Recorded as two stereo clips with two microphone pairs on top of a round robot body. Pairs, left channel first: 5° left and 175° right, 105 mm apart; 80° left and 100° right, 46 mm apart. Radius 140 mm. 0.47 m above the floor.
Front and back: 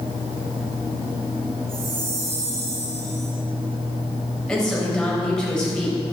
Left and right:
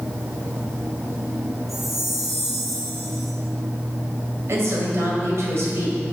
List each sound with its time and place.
1.7 s a chime: 170° left, 2.5 m
4.5 s a woman speaking: 75° right, 3 m